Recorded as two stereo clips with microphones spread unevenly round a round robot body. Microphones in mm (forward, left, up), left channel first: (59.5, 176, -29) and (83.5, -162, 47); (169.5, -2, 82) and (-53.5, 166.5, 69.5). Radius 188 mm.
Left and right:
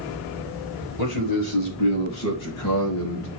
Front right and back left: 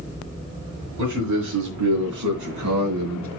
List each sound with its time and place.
1.0 s a man speaking: 130° left, 4 m; by 3.3 s 145° left, 2.5 m